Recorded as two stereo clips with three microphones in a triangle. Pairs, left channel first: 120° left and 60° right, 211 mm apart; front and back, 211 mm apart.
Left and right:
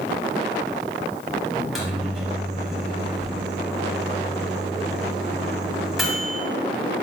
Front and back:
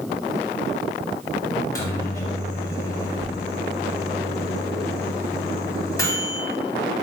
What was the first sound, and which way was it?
A microwave, 25° left.